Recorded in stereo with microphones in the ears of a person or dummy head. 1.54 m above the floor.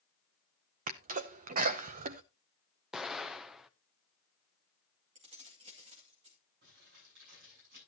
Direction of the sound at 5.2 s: 35° right (ahead or behind).